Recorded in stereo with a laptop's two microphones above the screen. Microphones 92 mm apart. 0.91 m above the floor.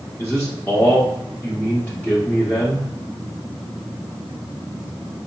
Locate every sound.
0.2 s a man speaking: 15° left (ahead or behind), 0.9 m